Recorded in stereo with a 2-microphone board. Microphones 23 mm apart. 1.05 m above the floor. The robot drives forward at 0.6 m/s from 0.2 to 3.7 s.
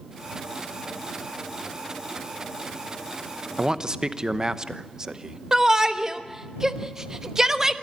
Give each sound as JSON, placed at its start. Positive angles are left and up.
{"t": 3.6, "sound": "a man speaking", "side_deg": -30, "distance_m": 0.8}
{"t": 5.5, "sound": "a shout", "side_deg": -25, "distance_m": 1.1}